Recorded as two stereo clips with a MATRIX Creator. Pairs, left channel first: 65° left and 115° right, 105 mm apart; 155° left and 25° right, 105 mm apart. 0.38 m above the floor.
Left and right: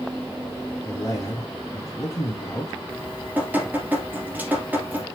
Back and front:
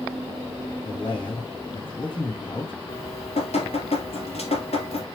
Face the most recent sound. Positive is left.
turn(degrees=175)